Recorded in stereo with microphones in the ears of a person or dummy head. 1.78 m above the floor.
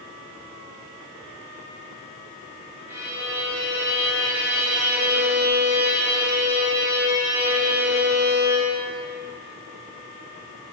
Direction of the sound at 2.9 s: 15° right (ahead or behind).